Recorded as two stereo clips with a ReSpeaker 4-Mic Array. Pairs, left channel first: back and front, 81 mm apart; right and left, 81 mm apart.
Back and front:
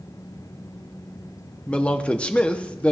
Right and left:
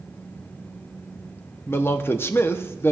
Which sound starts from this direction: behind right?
A man speaking, at 1.7 s.